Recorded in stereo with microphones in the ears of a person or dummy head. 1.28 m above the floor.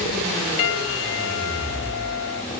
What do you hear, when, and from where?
0.6 s a piano: 70° left (ahead or behind)